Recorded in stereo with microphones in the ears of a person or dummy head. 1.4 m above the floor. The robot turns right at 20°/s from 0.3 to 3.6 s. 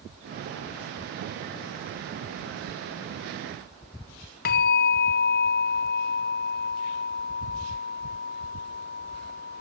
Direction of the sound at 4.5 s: 50° left (ahead or behind).